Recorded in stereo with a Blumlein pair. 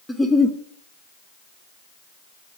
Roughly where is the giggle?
Ahead.